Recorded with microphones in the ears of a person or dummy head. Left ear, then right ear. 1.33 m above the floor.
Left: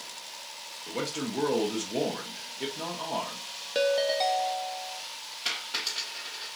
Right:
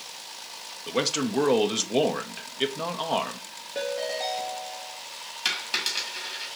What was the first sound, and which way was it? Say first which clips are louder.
A man speaking: right 7 dB; 40° right (ahead or behind).